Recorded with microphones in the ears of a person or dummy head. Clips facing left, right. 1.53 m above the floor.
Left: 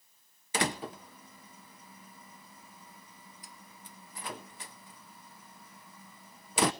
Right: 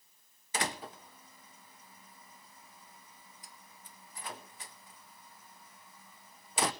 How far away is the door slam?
About 0.8 m.